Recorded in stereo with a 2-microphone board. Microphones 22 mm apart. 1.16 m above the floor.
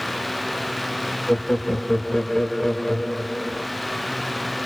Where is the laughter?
30° left (ahead or behind), 0.9 m.